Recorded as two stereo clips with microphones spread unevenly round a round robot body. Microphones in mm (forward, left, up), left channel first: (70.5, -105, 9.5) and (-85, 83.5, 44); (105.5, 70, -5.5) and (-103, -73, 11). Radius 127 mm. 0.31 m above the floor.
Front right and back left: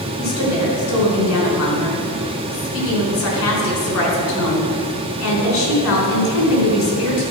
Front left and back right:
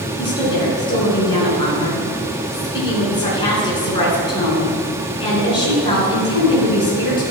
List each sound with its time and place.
0.2 s a woman speaking: 40° right, 4 m